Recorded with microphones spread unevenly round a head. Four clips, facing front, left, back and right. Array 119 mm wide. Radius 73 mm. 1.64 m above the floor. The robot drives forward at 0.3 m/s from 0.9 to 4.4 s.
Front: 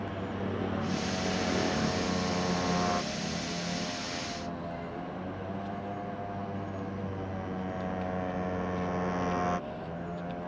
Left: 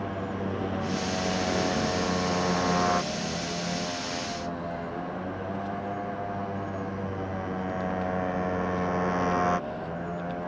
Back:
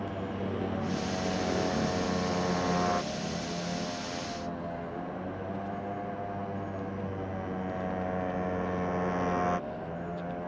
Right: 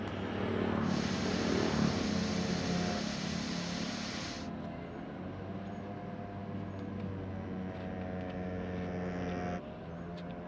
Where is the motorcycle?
140° left.